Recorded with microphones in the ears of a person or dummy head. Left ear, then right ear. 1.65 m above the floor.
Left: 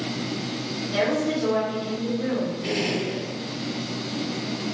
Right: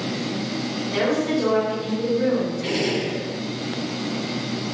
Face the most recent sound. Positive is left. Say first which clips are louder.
# right 2 dB
turn(degrees=-50)  # may be behind; listen again after turning